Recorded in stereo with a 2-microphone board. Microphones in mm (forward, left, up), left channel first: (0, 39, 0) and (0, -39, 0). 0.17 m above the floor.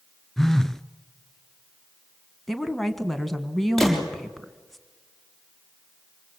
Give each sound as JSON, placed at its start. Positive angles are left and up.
{"t": 0.4, "sound": "a phone buzzing", "side_deg": 5, "distance_m": 0.7}
{"t": 2.5, "sound": "a woman speaking", "side_deg": 5, "distance_m": 1.6}
{"t": 3.8, "sound": "a gunshot", "side_deg": 0, "distance_m": 5.5}